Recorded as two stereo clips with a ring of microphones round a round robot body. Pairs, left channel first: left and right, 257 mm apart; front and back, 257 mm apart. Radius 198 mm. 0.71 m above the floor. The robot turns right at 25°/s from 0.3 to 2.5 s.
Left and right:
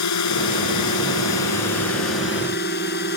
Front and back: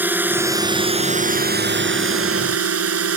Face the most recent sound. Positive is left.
turn(degrees=150)